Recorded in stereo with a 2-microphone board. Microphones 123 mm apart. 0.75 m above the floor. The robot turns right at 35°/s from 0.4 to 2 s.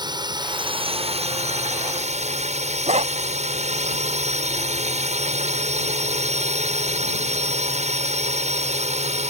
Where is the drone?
140° right; by 9.3 s 85° right.